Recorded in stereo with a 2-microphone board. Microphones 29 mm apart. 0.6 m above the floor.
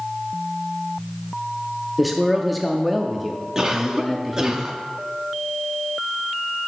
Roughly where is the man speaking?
Centre.